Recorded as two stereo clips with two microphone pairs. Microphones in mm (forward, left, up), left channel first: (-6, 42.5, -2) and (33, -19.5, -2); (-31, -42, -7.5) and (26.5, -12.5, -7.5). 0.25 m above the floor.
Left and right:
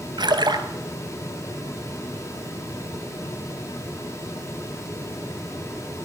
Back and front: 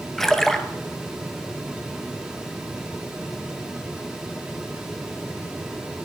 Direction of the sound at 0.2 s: 70° right.